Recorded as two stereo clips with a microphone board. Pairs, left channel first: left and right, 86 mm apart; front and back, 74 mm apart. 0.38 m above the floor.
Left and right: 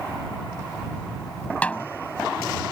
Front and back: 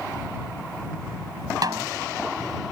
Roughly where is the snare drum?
Behind.